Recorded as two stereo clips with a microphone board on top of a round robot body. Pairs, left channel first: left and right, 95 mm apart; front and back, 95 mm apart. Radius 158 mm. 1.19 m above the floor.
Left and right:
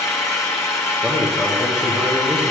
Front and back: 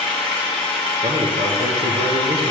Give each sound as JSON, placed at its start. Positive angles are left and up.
{"t": 0.0, "sound": "an engine running", "azimuth_deg": 30, "distance_m": 0.8}
{"t": 1.0, "sound": "a man speaking", "azimuth_deg": -165, "distance_m": 1.0}